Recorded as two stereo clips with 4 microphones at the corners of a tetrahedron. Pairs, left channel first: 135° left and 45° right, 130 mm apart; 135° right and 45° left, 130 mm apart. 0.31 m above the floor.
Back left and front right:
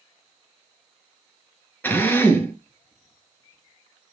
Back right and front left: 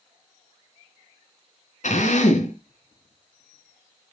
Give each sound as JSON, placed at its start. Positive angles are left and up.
{"t": 1.8, "sound": "a drill", "azimuth_deg": -150, "distance_m": 3.5}